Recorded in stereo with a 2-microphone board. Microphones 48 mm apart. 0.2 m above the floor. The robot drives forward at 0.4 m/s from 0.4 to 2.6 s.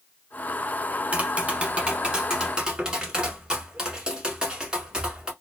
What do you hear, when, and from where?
1.1 s tapping: 30° right (ahead or behind), 0.6 m; by 5.3 s 20° right (ahead or behind), 1.0 m